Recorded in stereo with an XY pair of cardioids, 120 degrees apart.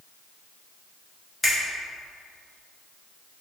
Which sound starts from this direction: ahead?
A finger snap, at 1.4 s.